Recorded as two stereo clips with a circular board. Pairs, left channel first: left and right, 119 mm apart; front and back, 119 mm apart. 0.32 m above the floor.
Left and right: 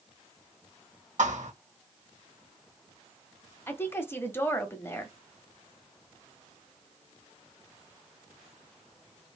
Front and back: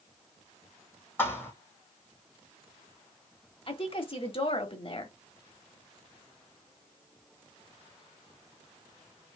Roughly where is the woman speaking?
Ahead left.